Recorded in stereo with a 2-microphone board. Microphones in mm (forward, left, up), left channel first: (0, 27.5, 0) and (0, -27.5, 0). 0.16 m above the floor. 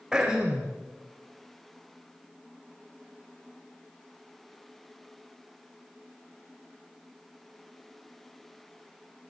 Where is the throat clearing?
10° right (ahead or behind), 3 m.